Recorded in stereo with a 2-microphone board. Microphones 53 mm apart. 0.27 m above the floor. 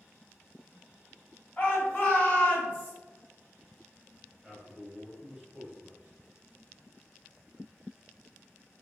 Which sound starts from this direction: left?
A shout, at 1.6 s.